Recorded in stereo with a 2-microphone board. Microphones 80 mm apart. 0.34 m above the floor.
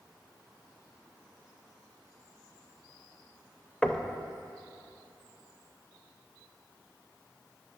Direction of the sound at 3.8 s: 10° left (ahead or behind).